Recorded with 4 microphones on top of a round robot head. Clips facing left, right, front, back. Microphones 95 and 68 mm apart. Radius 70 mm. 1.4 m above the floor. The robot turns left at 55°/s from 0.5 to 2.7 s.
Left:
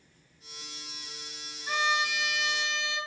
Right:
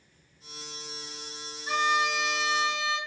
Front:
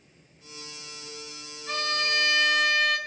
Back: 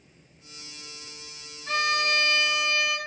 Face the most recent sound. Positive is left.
turn(degrees=130)